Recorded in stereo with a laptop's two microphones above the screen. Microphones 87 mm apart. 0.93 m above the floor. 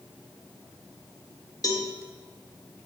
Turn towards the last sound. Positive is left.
turn(degrees=45)  # may be behind; listen again after turning